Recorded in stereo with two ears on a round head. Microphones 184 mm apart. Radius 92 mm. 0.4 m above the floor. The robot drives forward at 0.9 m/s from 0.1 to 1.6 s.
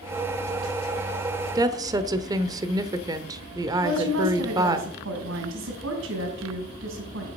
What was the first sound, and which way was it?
A woman speaking, 20° right (ahead or behind).